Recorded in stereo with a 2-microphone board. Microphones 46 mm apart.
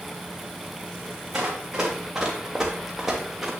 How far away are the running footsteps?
About 3.5 m.